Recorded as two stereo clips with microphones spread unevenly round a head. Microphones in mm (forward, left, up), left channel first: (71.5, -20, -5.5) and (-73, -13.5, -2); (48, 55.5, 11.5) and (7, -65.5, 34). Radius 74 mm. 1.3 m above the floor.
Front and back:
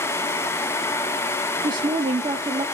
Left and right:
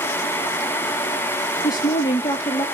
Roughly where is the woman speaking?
Behind left.